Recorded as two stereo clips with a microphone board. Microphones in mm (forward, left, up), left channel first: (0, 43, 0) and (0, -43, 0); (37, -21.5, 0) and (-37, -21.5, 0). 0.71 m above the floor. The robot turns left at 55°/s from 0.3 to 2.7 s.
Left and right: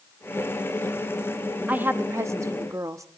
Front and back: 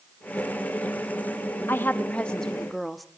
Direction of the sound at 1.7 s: 35° right.